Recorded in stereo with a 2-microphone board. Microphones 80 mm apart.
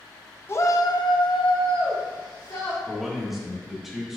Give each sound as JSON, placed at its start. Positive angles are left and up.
{"t": 0.5, "sound": "a shout", "side_deg": 30, "distance_m": 0.8}
{"t": 2.9, "sound": "a man speaking", "side_deg": -5, "distance_m": 2.0}